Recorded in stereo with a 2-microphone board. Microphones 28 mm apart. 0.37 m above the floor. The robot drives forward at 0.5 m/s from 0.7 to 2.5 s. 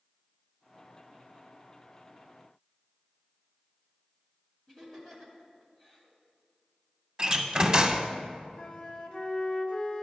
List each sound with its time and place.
4.7 s laughter: 15° left (ahead or behind), 2.5 m
7.2 s a door slam: 30° right (ahead or behind), 0.6 m
8.6 s a flute: 45° left (ahead or behind), 1.0 m